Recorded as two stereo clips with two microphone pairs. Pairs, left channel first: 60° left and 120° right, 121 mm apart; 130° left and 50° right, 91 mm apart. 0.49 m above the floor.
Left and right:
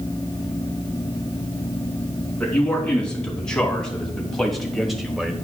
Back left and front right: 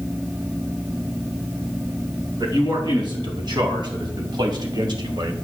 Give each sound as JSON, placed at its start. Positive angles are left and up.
{"t": 2.4, "sound": "a man speaking", "azimuth_deg": -20, "distance_m": 4.5}